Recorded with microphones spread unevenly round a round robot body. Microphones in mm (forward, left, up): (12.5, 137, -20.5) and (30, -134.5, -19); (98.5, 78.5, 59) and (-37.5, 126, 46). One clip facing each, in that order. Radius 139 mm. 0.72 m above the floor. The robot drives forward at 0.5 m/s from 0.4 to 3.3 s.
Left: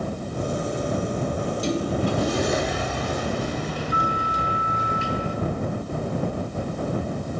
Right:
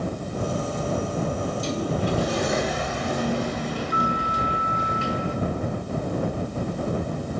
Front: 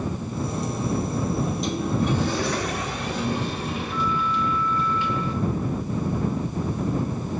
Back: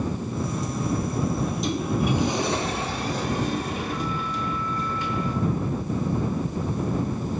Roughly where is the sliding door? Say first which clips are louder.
Left 2 dB, front 1 dB; ahead left.